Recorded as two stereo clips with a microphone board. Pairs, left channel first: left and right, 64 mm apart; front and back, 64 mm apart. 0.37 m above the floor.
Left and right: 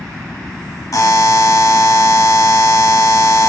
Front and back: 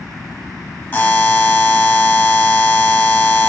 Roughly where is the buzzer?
Ahead left.